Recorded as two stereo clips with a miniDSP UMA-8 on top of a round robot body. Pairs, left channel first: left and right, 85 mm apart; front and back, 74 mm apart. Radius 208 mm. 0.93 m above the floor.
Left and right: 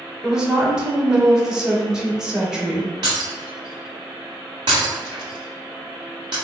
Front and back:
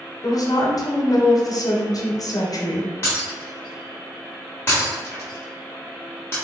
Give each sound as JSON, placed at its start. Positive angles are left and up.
{"t": 0.2, "sound": "a woman speaking", "azimuth_deg": -10, "distance_m": 1.0}
{"t": 3.0, "sound": "breaking glass", "azimuth_deg": -60, "distance_m": 0.7}